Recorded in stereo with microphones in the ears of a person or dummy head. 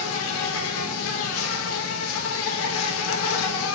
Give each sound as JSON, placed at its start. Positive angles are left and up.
{"t": 0.0, "sound": "an insect", "side_deg": 70, "distance_m": 1.2}